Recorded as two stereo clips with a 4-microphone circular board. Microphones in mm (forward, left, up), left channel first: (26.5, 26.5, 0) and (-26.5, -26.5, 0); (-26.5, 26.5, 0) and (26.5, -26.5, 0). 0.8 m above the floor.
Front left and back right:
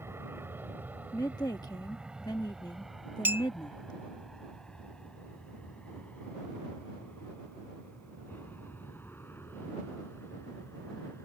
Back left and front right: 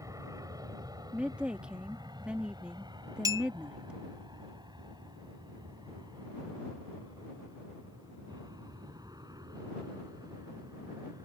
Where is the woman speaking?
30° left.